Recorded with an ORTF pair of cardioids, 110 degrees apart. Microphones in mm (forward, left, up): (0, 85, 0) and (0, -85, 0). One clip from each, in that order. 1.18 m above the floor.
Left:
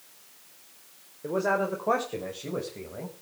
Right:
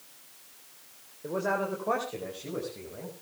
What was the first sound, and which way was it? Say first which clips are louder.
A man speaking: left 3 dB; 20° left.